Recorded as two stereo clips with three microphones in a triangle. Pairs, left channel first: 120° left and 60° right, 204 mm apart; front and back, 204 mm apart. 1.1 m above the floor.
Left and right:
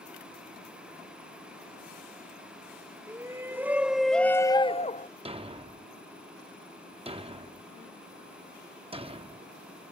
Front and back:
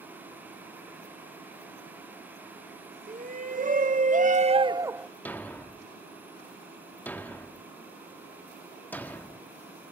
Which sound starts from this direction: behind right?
A shout, at 3.1 s.